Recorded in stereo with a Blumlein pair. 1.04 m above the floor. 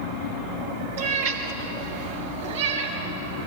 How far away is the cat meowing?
About 3 m.